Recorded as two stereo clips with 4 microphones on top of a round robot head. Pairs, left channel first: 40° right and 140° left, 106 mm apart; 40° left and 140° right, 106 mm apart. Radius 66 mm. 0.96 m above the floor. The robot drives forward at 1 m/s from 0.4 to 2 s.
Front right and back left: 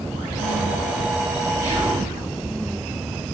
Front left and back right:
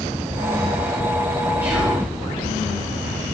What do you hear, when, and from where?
1.6 s whispering: 150° left, 1.5 m; by 2.0 s 160° left, 1.8 m